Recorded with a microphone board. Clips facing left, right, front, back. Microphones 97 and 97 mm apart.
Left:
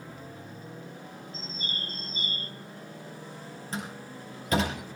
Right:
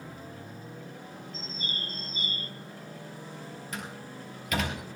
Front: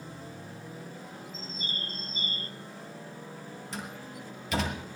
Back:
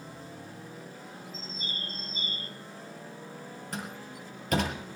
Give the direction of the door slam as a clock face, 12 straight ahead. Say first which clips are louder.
Left 4 dB, back 1 dB; 7 o'clock.